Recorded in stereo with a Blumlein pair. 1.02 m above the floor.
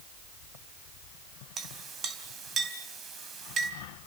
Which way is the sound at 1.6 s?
25° right.